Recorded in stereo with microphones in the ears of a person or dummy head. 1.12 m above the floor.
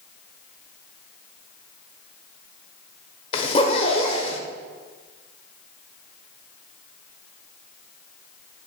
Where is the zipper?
35° left (ahead or behind), 1.3 m.